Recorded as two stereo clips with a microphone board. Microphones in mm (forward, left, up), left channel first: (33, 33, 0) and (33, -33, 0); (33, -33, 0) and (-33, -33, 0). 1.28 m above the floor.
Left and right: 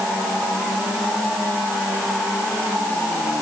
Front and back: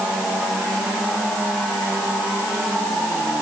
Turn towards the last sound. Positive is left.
No sound to turn to.